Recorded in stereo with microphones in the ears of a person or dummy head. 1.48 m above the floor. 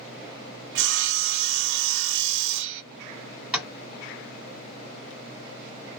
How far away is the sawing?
About 0.5 m.